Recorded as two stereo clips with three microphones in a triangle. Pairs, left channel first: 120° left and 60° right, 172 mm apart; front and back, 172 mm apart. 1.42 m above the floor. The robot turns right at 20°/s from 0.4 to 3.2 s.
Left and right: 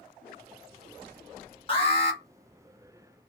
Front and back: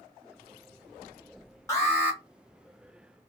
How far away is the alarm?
About 1.4 m.